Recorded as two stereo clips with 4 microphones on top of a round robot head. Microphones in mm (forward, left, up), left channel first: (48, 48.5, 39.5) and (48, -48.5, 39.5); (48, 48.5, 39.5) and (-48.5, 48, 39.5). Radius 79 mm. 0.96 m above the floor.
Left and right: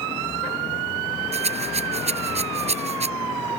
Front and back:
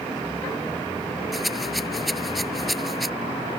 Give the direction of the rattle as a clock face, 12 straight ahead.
3 o'clock.